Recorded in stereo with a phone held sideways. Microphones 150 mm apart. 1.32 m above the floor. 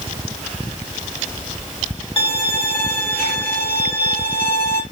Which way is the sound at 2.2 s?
40° left (ahead or behind).